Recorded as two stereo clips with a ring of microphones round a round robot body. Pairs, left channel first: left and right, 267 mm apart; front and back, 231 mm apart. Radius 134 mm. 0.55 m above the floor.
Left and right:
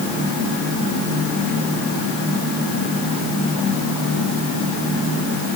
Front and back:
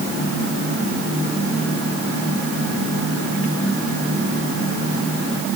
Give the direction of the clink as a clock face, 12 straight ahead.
I don't hear a clink.